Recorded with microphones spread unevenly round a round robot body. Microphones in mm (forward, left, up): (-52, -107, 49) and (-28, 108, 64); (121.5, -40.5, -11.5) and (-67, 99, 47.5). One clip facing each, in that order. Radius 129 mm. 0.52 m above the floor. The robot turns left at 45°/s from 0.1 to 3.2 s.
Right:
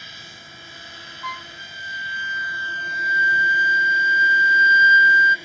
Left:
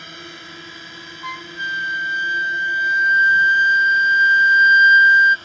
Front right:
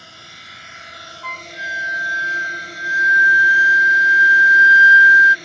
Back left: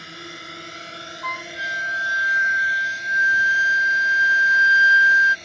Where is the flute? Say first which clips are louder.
Left 3 dB, front right 2 dB; 130° left; by 5.3 s 40° left.